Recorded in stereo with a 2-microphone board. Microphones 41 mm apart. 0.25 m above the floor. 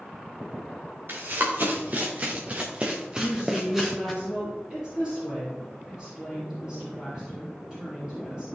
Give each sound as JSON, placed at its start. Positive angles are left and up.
{"t": 1.1, "sound": "running footsteps", "side_deg": -55, "distance_m": 3.0}
{"t": 3.1, "sound": "a woman speaking", "side_deg": -20, "distance_m": 4.0}